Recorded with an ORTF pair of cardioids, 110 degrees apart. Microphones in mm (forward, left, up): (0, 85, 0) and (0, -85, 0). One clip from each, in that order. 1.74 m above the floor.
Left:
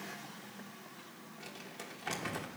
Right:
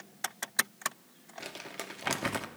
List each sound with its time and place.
1.4 s crumpling: 65° right, 1.2 m